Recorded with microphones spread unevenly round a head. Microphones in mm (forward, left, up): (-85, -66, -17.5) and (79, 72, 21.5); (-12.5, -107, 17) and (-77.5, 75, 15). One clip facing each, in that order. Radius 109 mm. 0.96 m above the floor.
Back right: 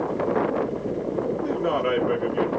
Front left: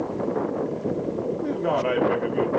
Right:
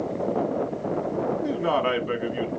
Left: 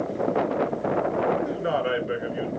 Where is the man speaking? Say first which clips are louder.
Front left 1 dB, right 1 dB; 60° right, 1.9 m.